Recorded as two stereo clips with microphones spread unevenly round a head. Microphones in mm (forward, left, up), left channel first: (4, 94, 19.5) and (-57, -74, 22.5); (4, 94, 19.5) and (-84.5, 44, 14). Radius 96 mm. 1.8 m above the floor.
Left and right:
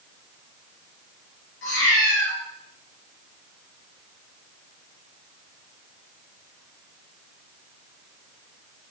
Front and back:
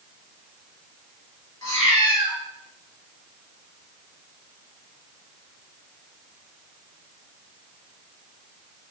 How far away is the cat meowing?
About 3.5 m.